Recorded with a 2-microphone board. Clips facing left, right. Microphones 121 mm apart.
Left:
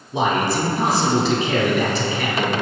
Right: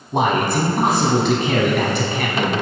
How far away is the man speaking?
About 2 m.